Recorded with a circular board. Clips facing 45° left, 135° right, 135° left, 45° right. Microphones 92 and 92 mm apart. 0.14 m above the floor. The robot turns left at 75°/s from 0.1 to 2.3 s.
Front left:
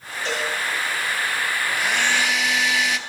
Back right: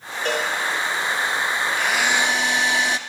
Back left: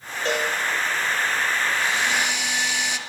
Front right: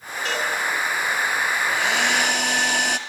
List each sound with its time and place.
0.2 s a cowbell: 170° right, 3 m; by 0.5 s 175° left, 3 m
1.7 s a hair dryer: 30° right, 0.7 m; by 3.0 s 75° right, 0.7 m